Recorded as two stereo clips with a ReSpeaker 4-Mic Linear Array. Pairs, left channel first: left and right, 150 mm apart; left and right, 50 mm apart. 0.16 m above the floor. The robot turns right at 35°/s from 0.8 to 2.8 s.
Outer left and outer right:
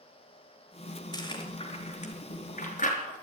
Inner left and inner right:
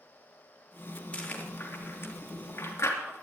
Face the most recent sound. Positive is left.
turn(degrees=60)  # may be behind; listen again after turning